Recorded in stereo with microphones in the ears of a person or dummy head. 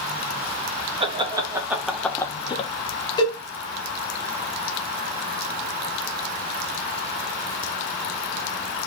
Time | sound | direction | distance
1.0 | laughter | 25° right (ahead or behind) | 1.1 m
3.2 | a cowbell | 20° left (ahead or behind) | 1.3 m